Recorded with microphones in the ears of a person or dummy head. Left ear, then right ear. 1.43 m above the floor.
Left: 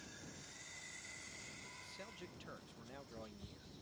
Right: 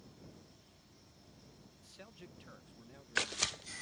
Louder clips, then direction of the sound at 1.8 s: Left 3 dB; 5° right (ahead or behind).